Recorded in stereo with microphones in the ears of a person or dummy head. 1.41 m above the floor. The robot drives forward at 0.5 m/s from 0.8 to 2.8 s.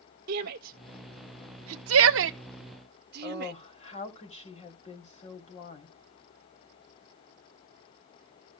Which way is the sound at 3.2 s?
35° left (ahead or behind).